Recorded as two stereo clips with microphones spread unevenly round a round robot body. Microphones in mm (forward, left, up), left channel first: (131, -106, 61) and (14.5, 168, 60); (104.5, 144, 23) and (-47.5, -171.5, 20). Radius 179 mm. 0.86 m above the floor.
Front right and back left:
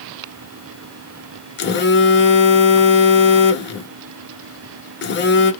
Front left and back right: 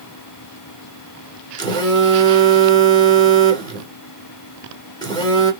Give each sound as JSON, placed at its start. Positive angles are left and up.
{"t": 1.6, "sound": "a phone buzzing", "azimuth_deg": -15, "distance_m": 1.1}